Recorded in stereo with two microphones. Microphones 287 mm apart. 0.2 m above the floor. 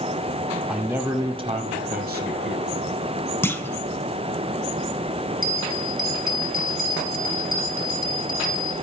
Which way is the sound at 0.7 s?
Centre (ahead or behind).